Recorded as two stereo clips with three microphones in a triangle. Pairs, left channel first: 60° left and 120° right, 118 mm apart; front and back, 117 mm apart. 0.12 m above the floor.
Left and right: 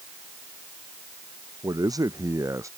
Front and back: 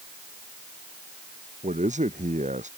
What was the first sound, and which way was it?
A man speaking, straight behind.